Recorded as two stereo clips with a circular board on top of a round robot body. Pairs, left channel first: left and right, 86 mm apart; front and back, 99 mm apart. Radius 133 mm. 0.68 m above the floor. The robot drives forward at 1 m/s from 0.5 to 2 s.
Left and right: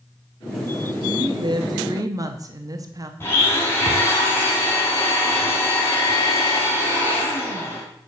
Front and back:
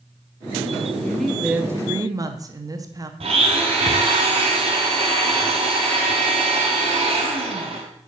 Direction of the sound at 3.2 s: 155° left.